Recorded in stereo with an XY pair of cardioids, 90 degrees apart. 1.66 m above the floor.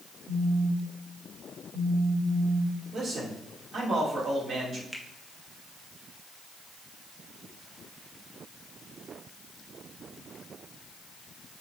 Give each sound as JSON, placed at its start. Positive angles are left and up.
{"t": 0.3, "sound": "a phone buzzing", "azimuth_deg": -35, "distance_m": 4.0}
{"t": 2.9, "sound": "a man speaking", "azimuth_deg": -60, "distance_m": 3.5}
{"t": 4.9, "sound": "a finger snap", "azimuth_deg": 0, "distance_m": 1.3}